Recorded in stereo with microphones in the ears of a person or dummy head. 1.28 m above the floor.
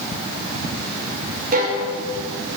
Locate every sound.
1.5 s a violin: 50° right (ahead or behind), 5.5 m